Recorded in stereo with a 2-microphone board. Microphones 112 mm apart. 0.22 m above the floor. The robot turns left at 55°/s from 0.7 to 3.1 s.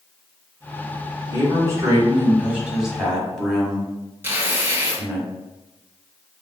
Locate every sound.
1.3 s a man speaking: 30° right (ahead or behind), 1.1 m; by 5.2 s 5° left (ahead or behind), 1.1 m
4.2 s tearing paper: 20° right (ahead or behind), 0.7 m